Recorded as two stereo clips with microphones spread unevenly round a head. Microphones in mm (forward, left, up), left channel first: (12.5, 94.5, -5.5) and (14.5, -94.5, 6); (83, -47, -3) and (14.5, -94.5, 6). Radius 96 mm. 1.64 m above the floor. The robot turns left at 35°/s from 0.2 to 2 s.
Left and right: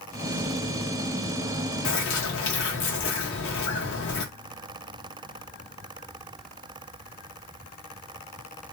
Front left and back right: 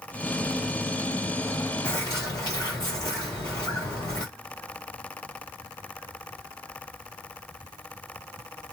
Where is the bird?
100° left, 1.0 m; by 4.2 s 95° left, 1.0 m.